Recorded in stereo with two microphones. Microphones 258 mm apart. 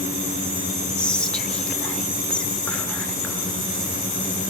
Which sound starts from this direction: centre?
Whispering, at 1.0 s.